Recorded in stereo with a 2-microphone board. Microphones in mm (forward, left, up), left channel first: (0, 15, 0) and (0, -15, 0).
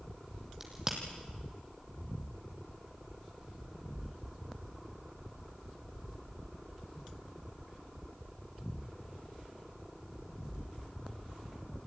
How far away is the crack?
About 4 m.